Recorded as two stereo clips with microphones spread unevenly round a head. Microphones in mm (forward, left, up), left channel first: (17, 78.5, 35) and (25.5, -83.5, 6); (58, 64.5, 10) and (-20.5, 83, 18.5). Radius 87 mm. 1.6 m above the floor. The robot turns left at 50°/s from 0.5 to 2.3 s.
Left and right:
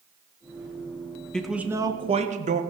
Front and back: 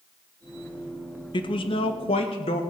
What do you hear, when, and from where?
1.3 s a man speaking: 10° left, 1.5 m; by 2.6 s 40° right, 1.5 m